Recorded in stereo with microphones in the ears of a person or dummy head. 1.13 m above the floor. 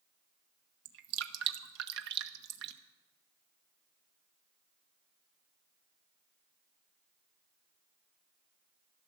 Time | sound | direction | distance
0.8 | dripping | 55° right (ahead or behind) | 0.7 m